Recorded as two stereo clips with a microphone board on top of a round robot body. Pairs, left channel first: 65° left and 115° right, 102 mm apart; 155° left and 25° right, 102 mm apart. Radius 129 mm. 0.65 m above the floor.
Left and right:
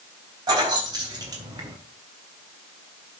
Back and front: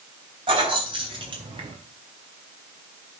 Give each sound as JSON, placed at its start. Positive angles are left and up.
{"t": 0.5, "sound": "keys jangling", "azimuth_deg": -65, "distance_m": 4.0}